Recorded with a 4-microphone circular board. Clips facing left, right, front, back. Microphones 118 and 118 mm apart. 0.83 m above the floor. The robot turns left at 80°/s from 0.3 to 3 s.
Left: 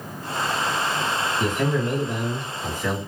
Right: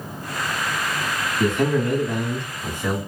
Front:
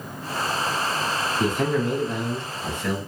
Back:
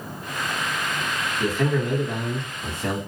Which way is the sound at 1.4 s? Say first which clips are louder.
Right 5 dB, even; 55° right.